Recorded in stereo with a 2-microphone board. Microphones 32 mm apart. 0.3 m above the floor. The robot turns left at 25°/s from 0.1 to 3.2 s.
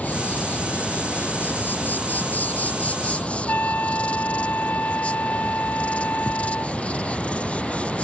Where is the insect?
120° left; by 8.0 s 45° left.